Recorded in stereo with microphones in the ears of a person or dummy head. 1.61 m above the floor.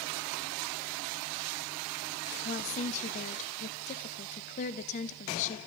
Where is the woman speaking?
40° left (ahead or behind), 0.6 m.